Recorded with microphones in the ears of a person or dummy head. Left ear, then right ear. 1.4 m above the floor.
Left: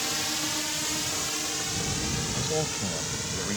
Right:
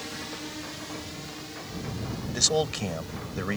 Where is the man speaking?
90° right.